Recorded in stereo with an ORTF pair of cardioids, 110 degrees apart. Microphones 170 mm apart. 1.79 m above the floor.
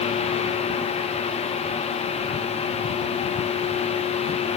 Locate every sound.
0.0 s a fan: 40° left, 1.4 m